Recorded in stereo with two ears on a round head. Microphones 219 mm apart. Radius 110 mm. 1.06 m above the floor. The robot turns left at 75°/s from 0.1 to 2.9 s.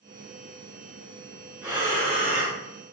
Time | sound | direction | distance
1.6 | breathing | 10° right | 1.8 m